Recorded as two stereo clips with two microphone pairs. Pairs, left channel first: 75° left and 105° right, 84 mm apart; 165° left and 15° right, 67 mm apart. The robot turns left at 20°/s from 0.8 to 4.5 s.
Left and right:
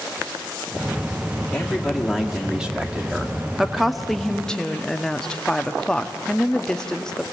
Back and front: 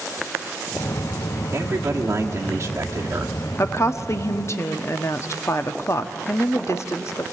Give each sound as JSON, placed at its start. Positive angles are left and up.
{"t": 1.5, "sound": "a man speaking", "azimuth_deg": -5, "distance_m": 1.6}
{"t": 3.6, "sound": "a woman speaking", "azimuth_deg": 175, "distance_m": 0.7}